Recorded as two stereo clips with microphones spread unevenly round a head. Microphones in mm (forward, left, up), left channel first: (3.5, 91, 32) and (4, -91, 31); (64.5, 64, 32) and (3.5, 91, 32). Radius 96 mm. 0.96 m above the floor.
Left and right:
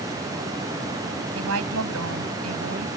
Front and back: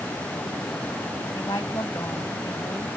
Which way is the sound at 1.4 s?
95° right.